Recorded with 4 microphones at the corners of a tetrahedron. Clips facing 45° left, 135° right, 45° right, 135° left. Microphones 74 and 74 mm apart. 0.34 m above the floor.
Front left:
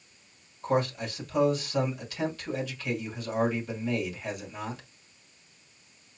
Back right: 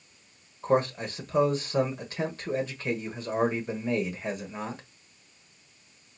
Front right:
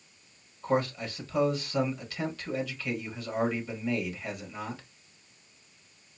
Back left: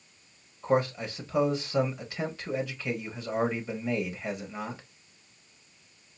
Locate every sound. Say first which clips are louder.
0.6 s a man speaking: back right 2 dB, back left 2 dB; 170° right, 1.4 m